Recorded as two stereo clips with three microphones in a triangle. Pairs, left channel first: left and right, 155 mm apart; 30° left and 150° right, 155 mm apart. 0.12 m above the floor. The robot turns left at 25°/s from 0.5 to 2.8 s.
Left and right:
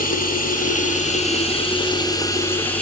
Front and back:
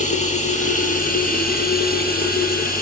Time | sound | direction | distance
0.0 | running water | 65° left | 5.5 m